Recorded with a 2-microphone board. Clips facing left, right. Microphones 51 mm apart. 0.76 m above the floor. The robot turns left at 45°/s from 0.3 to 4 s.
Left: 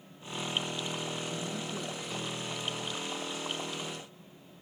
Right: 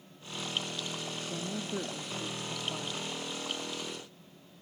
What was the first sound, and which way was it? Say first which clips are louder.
A woman speaking: even; 30° right.